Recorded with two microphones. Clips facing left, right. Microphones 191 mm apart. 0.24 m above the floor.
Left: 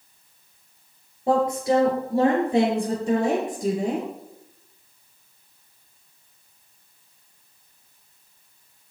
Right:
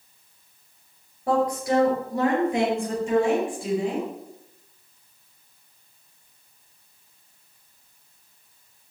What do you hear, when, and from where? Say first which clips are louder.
1.3 s a woman speaking: left 2 dB; 20° left (ahead or behind), 5 m; by 4.1 s 45° left (ahead or behind), 5 m